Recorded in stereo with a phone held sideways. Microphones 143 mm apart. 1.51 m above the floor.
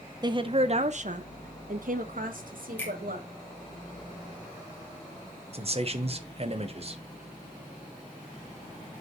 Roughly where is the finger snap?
Centre.